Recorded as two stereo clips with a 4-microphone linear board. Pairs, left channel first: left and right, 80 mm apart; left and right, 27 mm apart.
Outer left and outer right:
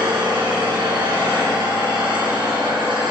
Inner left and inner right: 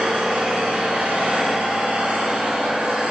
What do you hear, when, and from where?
0.0 s an engine running: 75° right (ahead or behind), 7.5 m